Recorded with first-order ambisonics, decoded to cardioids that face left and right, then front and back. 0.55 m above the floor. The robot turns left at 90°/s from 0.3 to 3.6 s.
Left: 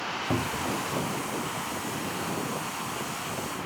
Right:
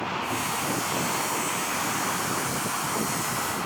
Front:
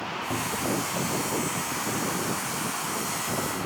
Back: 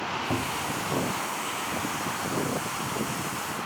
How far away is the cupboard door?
About 0.9 m.